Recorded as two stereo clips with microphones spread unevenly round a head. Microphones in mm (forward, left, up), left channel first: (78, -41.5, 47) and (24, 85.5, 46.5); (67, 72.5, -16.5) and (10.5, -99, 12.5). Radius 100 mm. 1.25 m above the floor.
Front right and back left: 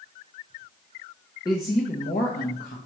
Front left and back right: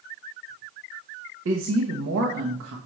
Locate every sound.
1.4 s a woman speaking: 135° right, 0.8 m; by 2.8 s 100° right, 1.5 m